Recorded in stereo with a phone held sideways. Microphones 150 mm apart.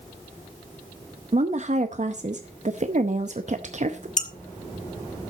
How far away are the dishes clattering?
About 1.2 m.